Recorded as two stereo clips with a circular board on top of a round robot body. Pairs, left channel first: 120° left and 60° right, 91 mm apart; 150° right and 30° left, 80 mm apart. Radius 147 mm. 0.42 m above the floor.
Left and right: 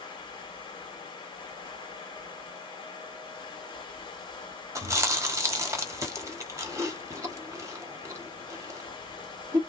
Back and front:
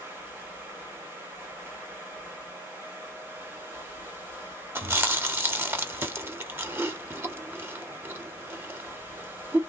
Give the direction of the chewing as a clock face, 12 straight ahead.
1 o'clock.